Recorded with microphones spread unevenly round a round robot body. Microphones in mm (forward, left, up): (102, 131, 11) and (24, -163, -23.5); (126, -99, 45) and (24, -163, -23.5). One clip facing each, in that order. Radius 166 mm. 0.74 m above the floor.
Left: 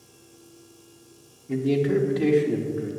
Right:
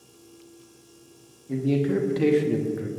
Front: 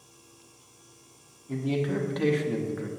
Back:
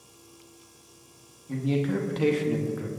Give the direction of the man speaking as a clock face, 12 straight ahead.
7 o'clock.